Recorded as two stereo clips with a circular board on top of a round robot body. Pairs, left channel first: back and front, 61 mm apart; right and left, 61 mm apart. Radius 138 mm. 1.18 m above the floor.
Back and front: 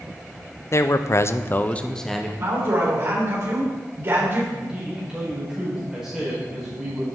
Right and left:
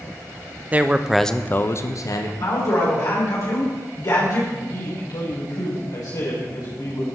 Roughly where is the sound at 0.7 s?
Behind left.